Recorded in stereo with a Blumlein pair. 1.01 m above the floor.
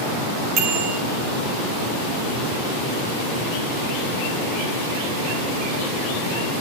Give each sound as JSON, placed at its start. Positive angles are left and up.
{"t": 0.6, "sound": "a bicycle bell", "azimuth_deg": -40, "distance_m": 4.0}